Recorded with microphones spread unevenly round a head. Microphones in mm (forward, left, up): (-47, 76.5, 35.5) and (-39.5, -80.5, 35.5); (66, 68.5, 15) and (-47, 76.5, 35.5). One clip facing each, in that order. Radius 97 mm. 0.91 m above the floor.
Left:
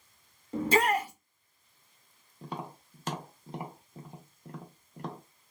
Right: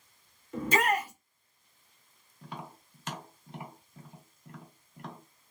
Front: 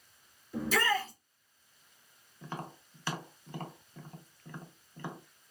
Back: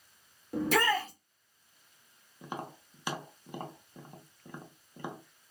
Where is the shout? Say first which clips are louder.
Left 2 dB, back 2 dB; 145° left, 1.6 m.